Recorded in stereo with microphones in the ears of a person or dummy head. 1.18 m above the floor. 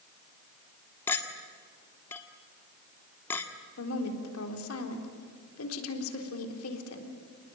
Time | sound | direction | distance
1.1 | a clink | 5° left (ahead or behind) | 1.8 m
3.8 | a woman speaking | 70° left (ahead or behind) | 3.5 m